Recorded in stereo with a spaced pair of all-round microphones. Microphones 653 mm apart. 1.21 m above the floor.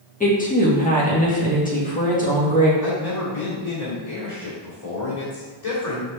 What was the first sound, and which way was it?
A woman speaking, 10° left (ahead or behind).